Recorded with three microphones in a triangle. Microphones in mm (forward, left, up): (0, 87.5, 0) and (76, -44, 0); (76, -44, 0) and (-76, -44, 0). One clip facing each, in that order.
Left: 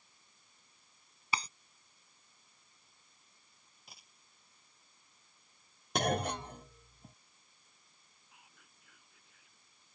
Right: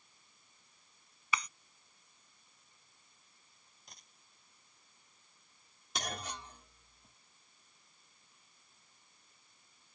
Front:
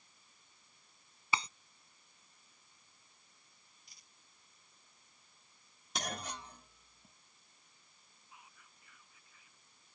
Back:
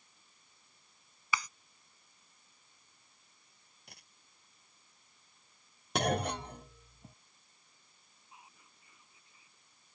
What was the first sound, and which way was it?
Breaking glass, 60° left.